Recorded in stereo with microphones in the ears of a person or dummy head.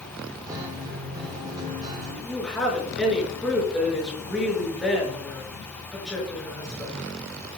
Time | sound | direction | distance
0.5 | a guitar | 25° right (ahead or behind) | 3 m
2.2 | a woman speaking | 5° left (ahead or behind) | 5.5 m